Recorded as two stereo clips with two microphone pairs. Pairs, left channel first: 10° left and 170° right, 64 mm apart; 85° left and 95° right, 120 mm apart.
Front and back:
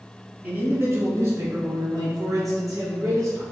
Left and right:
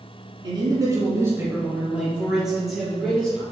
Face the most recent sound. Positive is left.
turn(degrees=170)